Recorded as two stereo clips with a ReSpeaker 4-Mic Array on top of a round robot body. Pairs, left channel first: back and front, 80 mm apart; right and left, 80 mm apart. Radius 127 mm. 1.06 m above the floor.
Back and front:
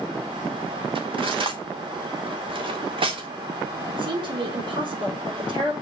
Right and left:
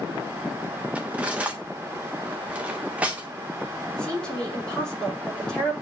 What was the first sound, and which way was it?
Cutlery clinking, 15° left.